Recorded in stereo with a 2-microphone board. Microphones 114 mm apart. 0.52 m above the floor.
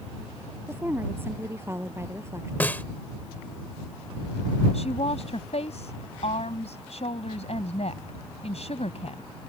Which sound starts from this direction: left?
A woman speaking, at 4.7 s.